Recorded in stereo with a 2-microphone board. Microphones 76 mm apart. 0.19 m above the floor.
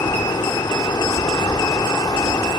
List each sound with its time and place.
0.0 s running water: 70° left (ahead or behind), 6.5 m